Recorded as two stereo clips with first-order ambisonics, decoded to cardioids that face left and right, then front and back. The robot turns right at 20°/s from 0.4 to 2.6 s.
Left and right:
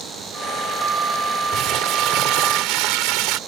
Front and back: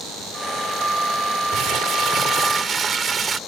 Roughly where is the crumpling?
Behind right.